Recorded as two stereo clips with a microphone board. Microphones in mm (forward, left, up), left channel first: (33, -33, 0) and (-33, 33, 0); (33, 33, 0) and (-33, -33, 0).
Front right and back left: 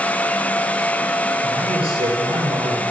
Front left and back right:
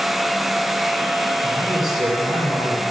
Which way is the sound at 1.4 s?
140° left.